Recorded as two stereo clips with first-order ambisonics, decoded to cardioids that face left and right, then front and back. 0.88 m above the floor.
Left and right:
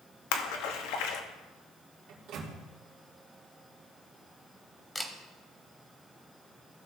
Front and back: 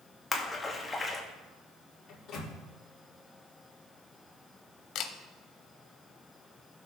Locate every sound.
0.3 s a splash: 80° left, 1.1 m
2.1 s a microwave: 50° right, 2.5 m
5.0 s a camera shutter: 10° left, 0.8 m